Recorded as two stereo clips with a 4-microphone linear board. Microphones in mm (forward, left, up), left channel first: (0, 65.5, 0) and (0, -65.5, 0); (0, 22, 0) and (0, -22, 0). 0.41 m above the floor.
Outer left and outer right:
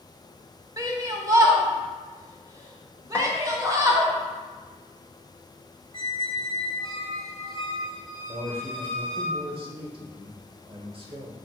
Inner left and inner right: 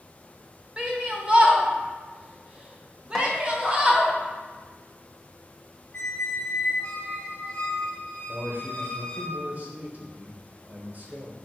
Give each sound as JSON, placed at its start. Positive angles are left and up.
{"t": 0.8, "sound": "a shout", "side_deg": -25, "distance_m": 0.9}
{"t": 3.1, "sound": "a snare drum", "side_deg": 10, "distance_m": 0.7}
{"t": 5.9, "sound": "a squeak", "side_deg": 40, "distance_m": 0.7}
{"t": 8.3, "sound": "a man speaking", "side_deg": -45, "distance_m": 1.0}